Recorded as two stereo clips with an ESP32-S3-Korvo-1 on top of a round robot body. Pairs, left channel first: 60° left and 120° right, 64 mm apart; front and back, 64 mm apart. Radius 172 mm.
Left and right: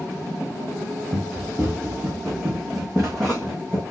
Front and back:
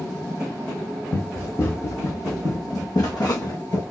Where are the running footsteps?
65° right, 1.7 m; by 3.8 s 15° right, 2 m.